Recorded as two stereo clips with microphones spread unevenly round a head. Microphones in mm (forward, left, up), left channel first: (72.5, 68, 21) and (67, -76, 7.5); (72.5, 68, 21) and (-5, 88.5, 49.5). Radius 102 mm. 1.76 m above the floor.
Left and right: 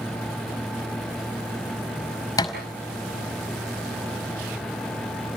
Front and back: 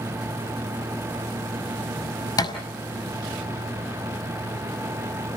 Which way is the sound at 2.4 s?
25° left.